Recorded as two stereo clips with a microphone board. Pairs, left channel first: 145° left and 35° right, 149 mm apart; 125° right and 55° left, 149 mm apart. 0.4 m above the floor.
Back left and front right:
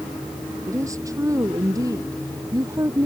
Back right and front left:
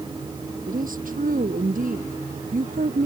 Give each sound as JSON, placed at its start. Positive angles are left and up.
{"t": 0.7, "sound": "a woman speaking", "azimuth_deg": 35}